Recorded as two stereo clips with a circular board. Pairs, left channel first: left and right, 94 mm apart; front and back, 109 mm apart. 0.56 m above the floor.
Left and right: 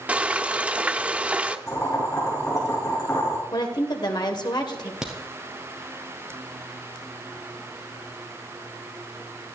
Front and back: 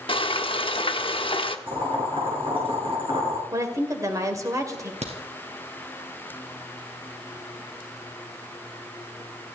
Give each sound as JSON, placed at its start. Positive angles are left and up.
{"t": 0.1, "sound": "frying", "azimuth_deg": -15, "distance_m": 1.1}
{"t": 1.7, "sound": "boiling", "azimuth_deg": 145, "distance_m": 6.0}
{"t": 3.5, "sound": "a woman speaking", "azimuth_deg": 125, "distance_m": 2.5}
{"t": 5.0, "sound": "a crack", "azimuth_deg": -175, "distance_m": 3.5}